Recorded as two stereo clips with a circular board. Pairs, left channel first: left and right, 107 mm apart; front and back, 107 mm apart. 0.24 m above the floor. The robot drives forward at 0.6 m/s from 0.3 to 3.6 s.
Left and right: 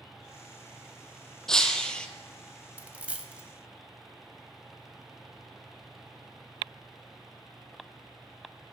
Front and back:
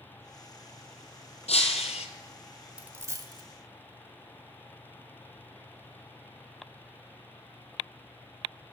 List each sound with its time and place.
1.5 s breaking glass: 5° left, 0.9 m; by 2.1 s 10° left, 0.6 m
2.8 s a dropped coin: 130° right, 0.6 m; by 3.4 s 165° right, 0.7 m